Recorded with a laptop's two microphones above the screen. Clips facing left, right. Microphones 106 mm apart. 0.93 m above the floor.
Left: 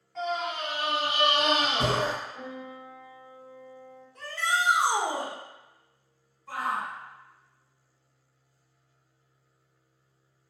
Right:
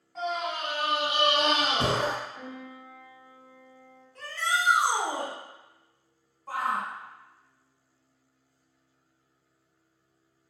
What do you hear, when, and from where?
0.1 s a scream: 5° right (ahead or behind), 1.0 m; by 2.1 s 20° right (ahead or behind), 1.1 m
2.4 s a piano: 35° left (ahead or behind), 1.6 m
4.2 s a shout: 20° left (ahead or behind), 1.1 m
6.5 s a shout: 45° right (ahead or behind), 1.0 m